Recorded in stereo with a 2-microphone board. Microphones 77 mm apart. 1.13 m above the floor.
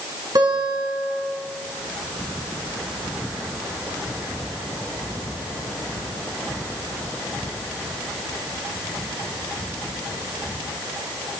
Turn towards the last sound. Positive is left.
turn(degrees=-55)  # may be behind; listen again after turning